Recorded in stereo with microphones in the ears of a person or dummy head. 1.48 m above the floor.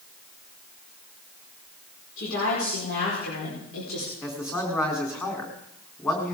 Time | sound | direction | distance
2.2 | a woman speaking | 80° left | 5 m
4.2 | a man speaking | 10° left (ahead or behind) | 3.5 m